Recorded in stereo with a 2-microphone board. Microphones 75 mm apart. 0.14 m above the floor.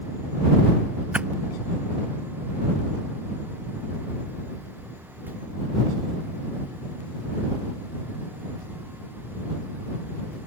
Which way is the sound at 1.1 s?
20° right (ahead or behind).